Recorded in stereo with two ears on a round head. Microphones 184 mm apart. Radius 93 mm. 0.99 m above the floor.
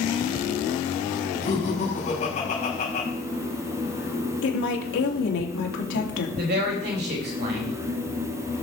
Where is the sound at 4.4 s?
70° left (ahead or behind), 2.5 m.